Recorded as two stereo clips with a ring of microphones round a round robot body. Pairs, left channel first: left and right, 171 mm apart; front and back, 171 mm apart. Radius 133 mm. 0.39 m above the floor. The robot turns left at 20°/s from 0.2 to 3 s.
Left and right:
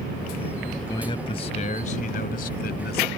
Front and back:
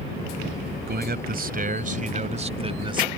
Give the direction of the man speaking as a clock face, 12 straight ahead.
7 o'clock.